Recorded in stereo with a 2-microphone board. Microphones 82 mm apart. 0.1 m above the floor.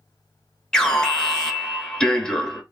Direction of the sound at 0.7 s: 10° left (ahead or behind).